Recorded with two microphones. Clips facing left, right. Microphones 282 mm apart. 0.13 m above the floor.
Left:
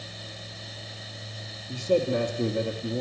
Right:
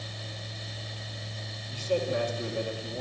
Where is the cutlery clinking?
I don't hear cutlery clinking.